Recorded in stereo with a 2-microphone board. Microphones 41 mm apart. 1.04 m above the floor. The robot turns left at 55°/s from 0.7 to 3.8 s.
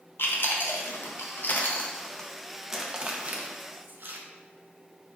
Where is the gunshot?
I don't hear a gunshot.